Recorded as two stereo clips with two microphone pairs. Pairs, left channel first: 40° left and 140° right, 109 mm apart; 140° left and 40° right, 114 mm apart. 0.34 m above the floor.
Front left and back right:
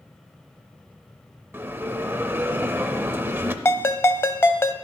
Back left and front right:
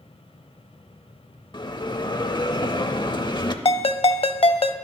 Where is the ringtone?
110° left, 0.6 m.